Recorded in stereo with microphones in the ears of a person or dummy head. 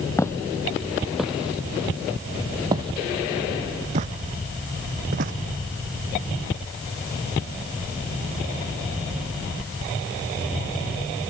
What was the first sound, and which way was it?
Footsteps, 10° left (ahead or behind).